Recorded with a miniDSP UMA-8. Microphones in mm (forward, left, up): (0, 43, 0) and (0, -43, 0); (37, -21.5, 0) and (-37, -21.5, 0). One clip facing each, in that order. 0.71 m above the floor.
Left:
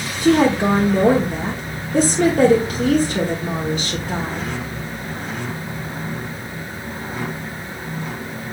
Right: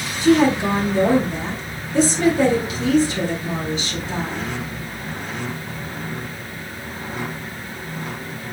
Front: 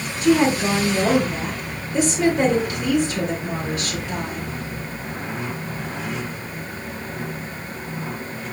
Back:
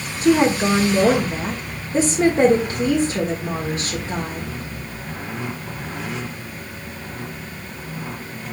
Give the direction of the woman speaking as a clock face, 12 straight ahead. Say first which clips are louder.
Left 1 dB, back 1 dB; 8 o'clock.